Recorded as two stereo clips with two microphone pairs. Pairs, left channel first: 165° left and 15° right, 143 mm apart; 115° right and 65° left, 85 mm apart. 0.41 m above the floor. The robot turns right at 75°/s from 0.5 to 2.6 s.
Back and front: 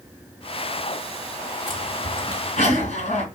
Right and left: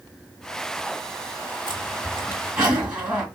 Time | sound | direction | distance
1.7 | a zipper | 70° left | 1.9 m